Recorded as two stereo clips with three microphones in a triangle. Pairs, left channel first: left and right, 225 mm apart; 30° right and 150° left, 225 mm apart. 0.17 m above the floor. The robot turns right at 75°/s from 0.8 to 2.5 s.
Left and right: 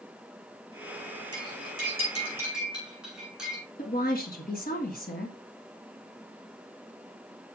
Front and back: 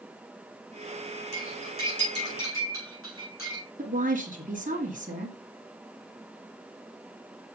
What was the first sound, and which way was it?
Cutlery clinking, 90° right.